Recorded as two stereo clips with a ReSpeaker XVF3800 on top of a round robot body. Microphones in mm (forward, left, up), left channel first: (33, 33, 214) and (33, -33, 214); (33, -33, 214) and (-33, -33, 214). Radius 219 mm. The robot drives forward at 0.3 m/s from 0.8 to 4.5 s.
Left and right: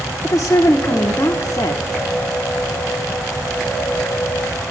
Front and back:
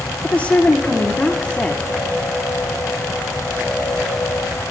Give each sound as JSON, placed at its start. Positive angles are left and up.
{"t": 0.2, "sound": "a woman speaking", "azimuth_deg": 60, "distance_m": 1.4}